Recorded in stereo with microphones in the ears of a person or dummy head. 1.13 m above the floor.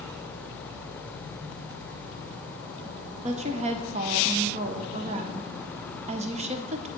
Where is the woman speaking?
35° right (ahead or behind), 0.6 m.